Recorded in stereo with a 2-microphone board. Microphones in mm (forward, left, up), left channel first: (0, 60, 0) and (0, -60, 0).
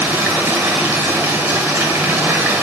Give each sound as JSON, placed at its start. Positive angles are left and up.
{"t": 0.0, "sound": "running water", "side_deg": -20, "distance_m": 1.1}